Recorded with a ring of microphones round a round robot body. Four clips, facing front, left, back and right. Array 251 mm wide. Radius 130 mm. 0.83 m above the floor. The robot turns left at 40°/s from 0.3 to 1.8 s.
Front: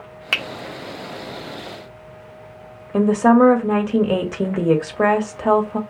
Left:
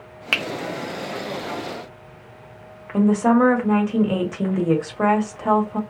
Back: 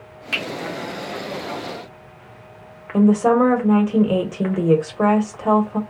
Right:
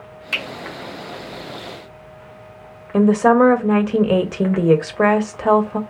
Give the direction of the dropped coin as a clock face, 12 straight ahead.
I don't hear a dropped coin.